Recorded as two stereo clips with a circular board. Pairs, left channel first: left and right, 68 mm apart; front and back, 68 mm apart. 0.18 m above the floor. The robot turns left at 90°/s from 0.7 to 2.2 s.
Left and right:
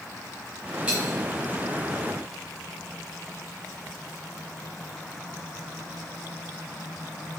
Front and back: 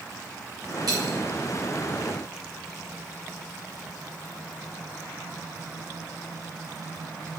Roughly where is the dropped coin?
Behind.